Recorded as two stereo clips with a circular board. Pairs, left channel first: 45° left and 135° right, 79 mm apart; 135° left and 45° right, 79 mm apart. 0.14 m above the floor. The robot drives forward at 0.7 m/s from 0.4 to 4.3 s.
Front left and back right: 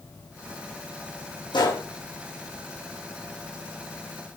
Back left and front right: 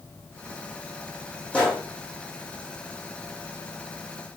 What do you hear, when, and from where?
1.5 s a gunshot: 60° left, 7 m; by 1.8 s 65° left, 7 m